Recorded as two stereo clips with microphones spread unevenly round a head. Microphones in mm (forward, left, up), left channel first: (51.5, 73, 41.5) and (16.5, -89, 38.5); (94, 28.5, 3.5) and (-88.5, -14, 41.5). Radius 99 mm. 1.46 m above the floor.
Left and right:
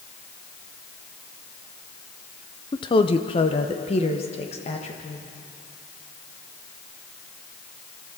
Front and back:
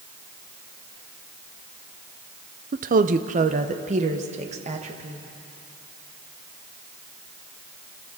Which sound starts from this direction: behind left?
A woman speaking, at 2.7 s.